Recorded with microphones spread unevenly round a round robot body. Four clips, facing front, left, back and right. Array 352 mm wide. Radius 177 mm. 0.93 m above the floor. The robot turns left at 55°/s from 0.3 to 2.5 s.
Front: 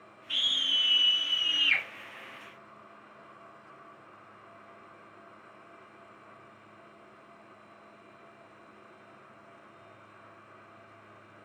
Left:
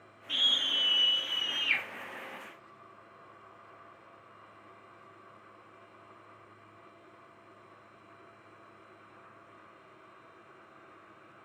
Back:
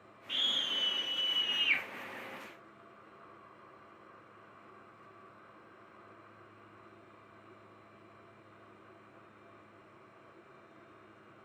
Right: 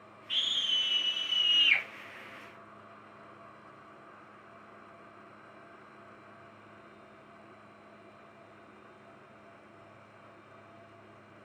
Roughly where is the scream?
Left.